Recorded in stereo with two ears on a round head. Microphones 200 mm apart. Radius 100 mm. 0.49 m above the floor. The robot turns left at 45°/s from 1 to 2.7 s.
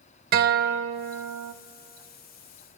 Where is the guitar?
40° right (ahead or behind), 0.5 m; by 1.5 s 65° right (ahead or behind), 0.5 m.